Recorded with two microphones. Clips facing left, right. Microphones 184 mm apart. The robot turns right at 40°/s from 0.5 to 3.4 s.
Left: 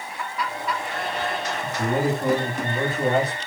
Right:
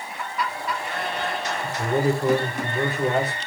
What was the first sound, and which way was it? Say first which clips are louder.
A man speaking: right 1 dB; 70° left.